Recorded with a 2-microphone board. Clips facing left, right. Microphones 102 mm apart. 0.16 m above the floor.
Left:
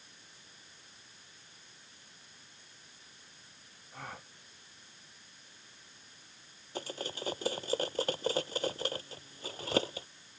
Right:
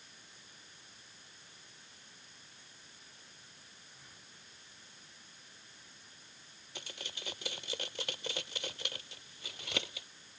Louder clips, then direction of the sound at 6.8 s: Left 10 dB; 40° left (ahead or behind).